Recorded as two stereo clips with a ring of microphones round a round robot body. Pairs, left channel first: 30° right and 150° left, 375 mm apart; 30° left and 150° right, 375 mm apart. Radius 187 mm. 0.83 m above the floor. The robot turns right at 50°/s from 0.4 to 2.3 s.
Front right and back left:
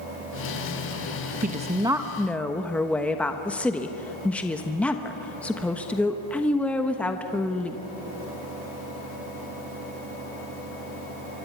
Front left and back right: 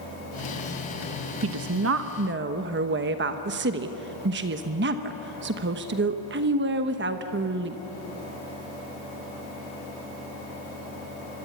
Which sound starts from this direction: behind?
A woman speaking, at 1.4 s.